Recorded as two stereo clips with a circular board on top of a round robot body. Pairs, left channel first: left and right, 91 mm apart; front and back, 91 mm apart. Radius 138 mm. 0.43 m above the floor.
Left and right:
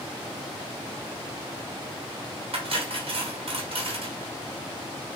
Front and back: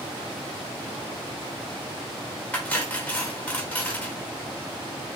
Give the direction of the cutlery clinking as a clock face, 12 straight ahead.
3 o'clock.